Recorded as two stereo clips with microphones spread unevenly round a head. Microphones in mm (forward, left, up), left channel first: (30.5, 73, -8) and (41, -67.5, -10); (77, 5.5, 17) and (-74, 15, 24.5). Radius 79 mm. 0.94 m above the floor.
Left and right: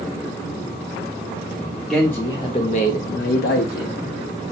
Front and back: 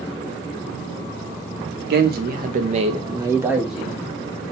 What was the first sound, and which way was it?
A man speaking, 175° right.